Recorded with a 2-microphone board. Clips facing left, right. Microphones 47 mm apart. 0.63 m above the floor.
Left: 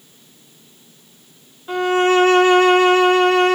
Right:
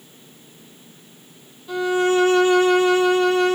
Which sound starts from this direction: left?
A violin, at 1.7 s.